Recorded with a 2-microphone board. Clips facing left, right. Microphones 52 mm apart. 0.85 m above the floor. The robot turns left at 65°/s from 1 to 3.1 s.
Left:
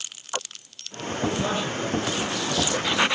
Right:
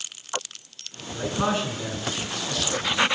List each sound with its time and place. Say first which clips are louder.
1.1 s a man speaking: right 1 dB; 55° right, 9 m; by 3.1 s straight behind, 9 m